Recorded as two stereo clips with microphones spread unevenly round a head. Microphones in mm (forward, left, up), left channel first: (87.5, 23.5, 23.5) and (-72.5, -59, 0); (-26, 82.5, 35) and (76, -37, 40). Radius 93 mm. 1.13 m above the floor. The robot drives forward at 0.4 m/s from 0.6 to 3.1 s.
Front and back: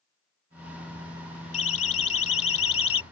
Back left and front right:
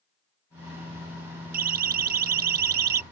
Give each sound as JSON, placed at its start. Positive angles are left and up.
{"t": 1.5, "sound": "a siren", "azimuth_deg": -25}